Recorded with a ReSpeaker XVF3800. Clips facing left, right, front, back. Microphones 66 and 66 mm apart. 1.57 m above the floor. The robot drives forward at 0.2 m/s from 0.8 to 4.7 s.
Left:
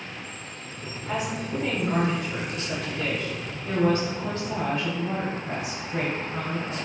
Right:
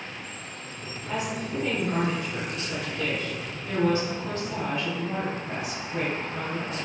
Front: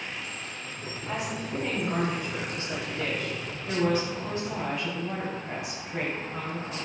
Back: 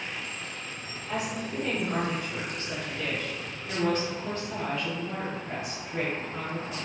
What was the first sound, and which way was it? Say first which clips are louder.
A woman speaking: left 1 dB, even; 50° left.